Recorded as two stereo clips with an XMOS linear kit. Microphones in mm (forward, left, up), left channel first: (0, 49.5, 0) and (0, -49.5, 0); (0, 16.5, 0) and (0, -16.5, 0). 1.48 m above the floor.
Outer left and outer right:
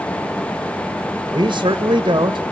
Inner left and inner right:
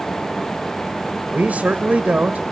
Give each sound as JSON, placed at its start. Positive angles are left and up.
{"t": 1.3, "sound": "a man speaking", "side_deg": -50, "distance_m": 2.0}